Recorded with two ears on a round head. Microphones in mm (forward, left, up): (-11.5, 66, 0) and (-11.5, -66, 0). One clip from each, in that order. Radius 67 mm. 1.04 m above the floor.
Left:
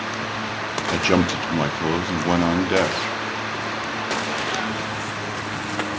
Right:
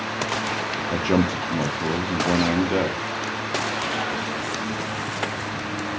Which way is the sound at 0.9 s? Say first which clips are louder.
Left 4 dB; 45° left (ahead or behind).